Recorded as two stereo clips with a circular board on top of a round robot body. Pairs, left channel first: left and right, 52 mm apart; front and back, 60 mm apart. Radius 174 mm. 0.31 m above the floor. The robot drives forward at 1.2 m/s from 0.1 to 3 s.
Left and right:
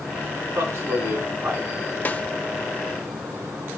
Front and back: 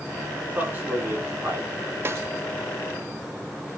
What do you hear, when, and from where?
0.4 s a man speaking: 115° right, 5 m; by 1.7 s 130° right, 6 m
2.0 s a snare drum: 140° left, 1.1 m; by 2.2 s 145° left, 1.3 m